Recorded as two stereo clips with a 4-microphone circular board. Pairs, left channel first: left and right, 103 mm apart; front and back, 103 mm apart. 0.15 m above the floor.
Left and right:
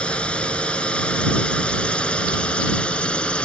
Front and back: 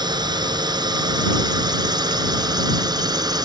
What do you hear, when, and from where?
0.0 s a drone: 165° left